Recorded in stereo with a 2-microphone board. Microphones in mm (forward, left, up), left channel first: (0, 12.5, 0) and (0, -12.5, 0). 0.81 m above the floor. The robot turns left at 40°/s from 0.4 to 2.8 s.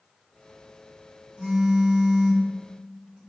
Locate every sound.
1.4 s a phone buzzing: 85° right, 1.7 m; by 3.2 s 145° right, 1.7 m